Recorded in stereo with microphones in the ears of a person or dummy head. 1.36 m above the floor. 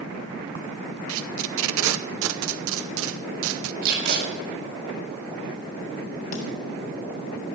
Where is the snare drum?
45° left (ahead or behind), 3.5 m.